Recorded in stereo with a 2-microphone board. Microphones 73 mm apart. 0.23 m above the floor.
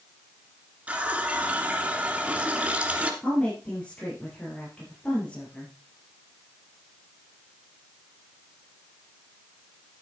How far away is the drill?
No drill in this recording.